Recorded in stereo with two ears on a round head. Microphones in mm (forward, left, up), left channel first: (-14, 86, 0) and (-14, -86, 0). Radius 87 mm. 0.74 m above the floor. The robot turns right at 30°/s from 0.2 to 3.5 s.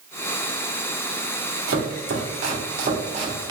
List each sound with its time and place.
1.7 s chopping: 75° right (ahead or behind), 1.1 m; by 3.5 s 20° right (ahead or behind), 1.1 m